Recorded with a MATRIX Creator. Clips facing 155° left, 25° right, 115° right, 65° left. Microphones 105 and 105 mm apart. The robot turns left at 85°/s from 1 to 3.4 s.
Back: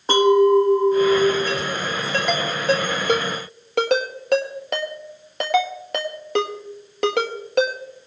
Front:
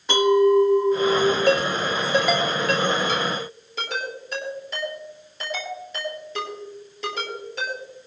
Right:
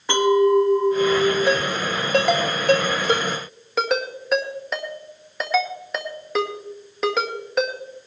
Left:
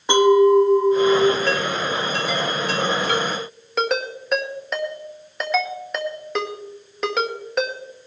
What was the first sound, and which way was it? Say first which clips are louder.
A clink: back 2 dB, left 3 dB; 130° left.